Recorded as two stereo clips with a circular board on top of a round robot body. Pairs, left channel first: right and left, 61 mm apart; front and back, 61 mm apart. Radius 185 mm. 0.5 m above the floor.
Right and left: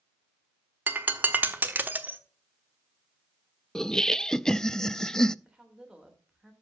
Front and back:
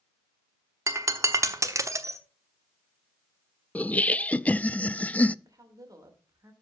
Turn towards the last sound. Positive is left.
turn(degrees=165)